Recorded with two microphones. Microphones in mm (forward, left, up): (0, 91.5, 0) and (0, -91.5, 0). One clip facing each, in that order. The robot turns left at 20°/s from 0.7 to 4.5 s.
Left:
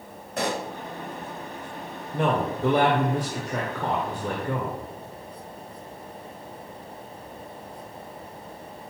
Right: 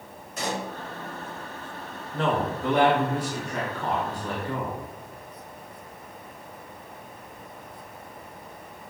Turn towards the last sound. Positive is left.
turn(degrees=110)